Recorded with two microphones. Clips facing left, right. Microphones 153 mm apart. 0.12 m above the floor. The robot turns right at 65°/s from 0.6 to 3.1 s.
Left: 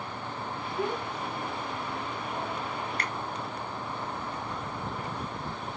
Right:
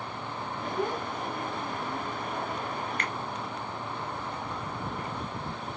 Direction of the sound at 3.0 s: 35° left (ahead or behind).